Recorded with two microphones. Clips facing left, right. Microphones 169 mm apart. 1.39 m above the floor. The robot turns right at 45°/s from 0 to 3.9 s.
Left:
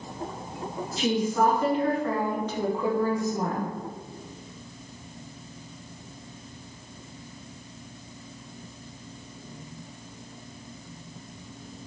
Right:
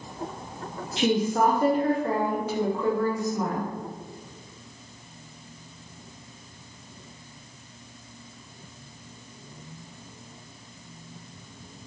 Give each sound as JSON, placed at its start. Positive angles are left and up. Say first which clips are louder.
{"t": 1.0, "sound": "a woman speaking", "louder": "right 2 dB", "azimuth_deg": -75, "distance_m": 0.7}